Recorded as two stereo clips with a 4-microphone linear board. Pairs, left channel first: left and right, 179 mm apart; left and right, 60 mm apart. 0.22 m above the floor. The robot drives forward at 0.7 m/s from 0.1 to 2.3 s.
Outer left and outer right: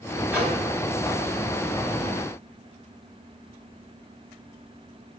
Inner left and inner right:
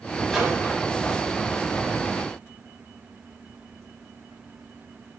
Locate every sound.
0.3 s a microwave: 5° right (ahead or behind), 1.1 m